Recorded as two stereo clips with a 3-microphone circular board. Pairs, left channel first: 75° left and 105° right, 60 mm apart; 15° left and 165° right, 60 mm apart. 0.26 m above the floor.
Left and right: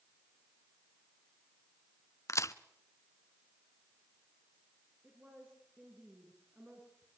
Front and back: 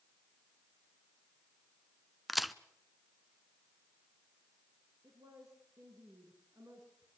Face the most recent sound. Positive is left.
turn(degrees=-170)